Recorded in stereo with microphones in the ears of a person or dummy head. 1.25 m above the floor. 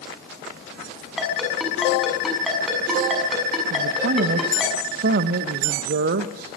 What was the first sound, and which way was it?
A ringtone, 5° right (ahead or behind).